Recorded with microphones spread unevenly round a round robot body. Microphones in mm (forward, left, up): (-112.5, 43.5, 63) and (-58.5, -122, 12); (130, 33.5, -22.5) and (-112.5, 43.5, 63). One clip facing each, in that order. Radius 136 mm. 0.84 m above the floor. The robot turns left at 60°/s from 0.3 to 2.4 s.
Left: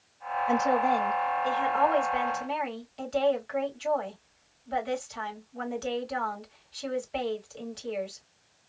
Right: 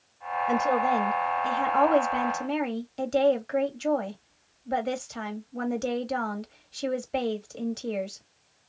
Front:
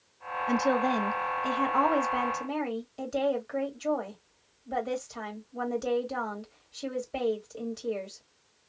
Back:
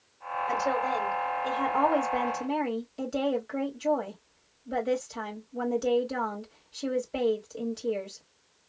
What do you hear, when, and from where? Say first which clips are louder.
0.5 s a woman speaking: even, front 5 dB; 35° left, 1.9 m; by 8.2 s 85° right, 1.9 m